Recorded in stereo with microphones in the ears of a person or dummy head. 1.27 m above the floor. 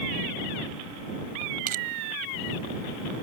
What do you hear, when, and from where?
1.7 s crushing: 50° right (ahead or behind)